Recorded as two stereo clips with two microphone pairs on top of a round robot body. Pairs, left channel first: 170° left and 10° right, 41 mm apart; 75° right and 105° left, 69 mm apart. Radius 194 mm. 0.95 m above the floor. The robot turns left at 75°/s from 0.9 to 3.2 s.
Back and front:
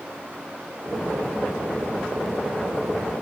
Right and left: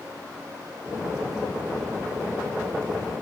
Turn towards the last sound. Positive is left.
No sound to turn to.